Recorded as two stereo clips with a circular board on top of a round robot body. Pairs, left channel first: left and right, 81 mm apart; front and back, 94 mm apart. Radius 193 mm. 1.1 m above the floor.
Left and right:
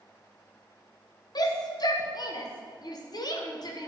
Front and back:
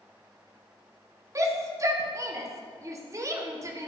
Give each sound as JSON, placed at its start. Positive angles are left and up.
{"t": 1.4, "sound": "a shout", "azimuth_deg": 125, "distance_m": 1.5}